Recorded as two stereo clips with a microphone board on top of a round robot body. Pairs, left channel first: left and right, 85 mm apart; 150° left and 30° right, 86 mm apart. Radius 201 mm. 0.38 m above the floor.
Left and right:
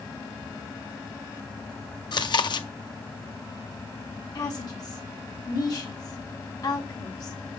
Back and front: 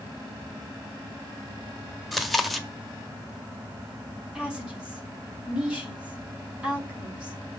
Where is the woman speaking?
50° left, 3 m.